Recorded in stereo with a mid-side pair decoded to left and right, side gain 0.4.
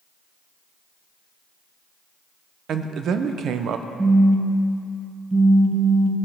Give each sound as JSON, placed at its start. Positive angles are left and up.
{"t": 2.7, "sound": "a man speaking", "azimuth_deg": -70, "distance_m": 0.6}
{"t": 4.0, "sound": "a phone buzzing", "azimuth_deg": -20, "distance_m": 0.9}